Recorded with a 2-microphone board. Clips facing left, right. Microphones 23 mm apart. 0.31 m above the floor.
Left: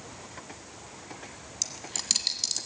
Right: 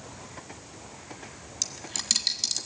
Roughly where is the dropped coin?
Centre.